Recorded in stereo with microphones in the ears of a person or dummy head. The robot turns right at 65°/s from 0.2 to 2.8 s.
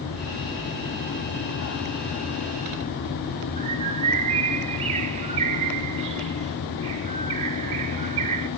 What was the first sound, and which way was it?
A bird, 25° right (ahead or behind).